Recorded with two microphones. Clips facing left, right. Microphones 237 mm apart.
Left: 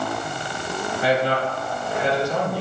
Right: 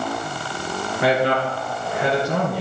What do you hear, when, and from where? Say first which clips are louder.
1.0 s a man speaking: right 2 dB; 70° right (ahead or behind), 3.5 m